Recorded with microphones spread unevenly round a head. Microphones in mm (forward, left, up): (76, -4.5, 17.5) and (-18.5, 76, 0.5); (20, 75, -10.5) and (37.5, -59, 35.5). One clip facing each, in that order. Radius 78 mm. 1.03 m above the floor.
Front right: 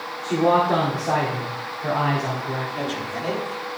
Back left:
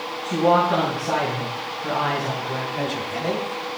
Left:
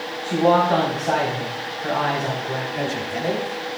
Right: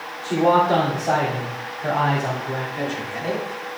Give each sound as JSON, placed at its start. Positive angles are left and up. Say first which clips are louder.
{"t": 0.2, "sound": "a man speaking", "louder": "even, even", "azimuth_deg": -30, "distance_m": 2.5}
{"t": 2.8, "sound": "a man speaking", "louder": "back left 1 dB, left 2 dB", "azimuth_deg": 50, "distance_m": 2.5}